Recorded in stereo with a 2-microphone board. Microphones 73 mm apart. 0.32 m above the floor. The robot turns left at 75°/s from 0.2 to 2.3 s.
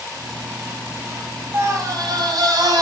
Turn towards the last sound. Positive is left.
turn(degrees=-95)